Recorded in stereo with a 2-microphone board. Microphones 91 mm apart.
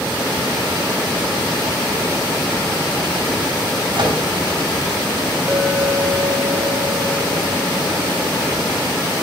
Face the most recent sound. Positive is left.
turn(degrees=-20)  # may be behind; listen again after turning